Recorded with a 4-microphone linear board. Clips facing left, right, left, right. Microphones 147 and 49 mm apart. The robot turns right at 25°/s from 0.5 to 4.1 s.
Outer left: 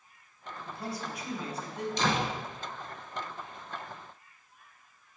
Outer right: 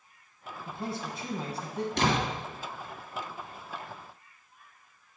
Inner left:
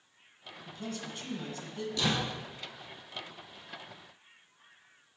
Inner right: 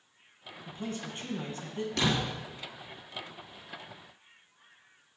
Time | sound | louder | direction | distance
0.7 | a man speaking | outer right 2 dB, inner right 2 dB | 25° right (ahead or behind) | 1.3 m
2.0 | a door slam | outer right 2 dB, inner right 2 dB | 60° right (ahead or behind) | 2.5 m